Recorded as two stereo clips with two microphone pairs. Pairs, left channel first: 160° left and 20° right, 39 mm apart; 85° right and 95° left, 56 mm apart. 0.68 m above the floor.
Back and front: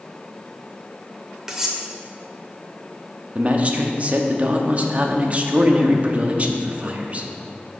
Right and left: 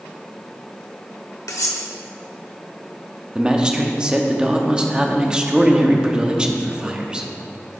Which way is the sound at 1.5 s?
95° right.